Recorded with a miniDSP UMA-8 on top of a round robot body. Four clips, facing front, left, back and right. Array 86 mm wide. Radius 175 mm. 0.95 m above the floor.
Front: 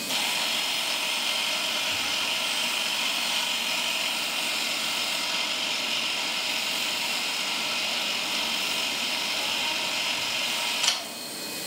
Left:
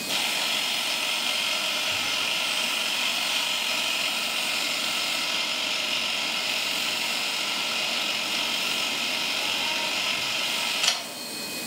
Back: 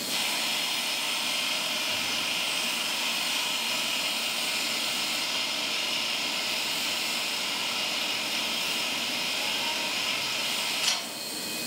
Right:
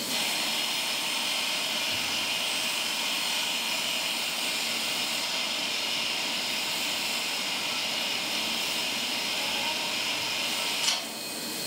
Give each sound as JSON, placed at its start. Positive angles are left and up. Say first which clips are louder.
{"t": 0.1, "sound": "a camera shutter", "louder": "left 4 dB, front 3 dB", "azimuth_deg": 70, "distance_m": 3.5}